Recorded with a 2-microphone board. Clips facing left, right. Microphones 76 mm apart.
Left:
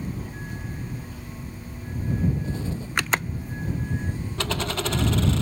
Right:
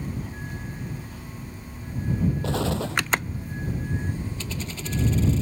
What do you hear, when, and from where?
2.4 s an explosion: 85° right
4.4 s a dropped coin: 75° left (ahead or behind)